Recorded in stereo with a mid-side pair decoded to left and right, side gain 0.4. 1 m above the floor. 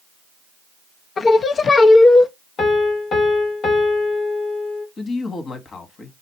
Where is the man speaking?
50° left, 1.3 m.